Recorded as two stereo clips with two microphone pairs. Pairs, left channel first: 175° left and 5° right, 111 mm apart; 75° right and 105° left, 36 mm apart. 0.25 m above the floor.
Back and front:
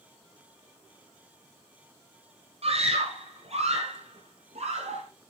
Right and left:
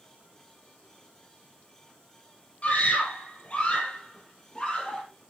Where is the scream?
30° right, 6 m; by 5.0 s 15° right, 6.5 m.